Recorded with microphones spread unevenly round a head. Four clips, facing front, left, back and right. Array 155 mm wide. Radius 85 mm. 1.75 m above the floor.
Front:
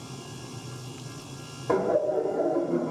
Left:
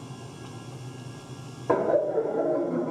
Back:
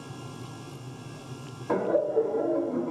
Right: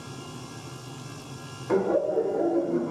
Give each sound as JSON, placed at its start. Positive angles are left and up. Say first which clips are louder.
{"t": 1.7, "sound": "laughter", "louder": "left 1 dB, front 1 dB", "azimuth_deg": 60, "distance_m": 1.6}